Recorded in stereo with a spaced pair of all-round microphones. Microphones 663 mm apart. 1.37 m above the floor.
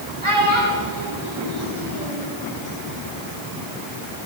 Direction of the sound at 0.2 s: 50° right (ahead or behind).